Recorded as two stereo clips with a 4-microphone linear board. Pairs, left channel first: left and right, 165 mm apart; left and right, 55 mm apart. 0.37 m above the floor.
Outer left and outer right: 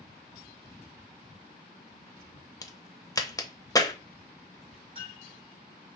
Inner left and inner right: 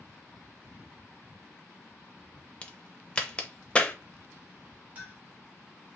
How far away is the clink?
About 1.8 m.